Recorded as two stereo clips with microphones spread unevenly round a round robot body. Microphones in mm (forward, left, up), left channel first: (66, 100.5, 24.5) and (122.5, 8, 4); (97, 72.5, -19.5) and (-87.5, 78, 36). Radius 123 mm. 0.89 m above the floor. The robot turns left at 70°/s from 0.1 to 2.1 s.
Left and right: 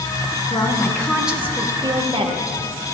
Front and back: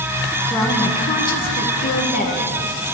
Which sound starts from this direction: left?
A woman speaking, at 0.5 s.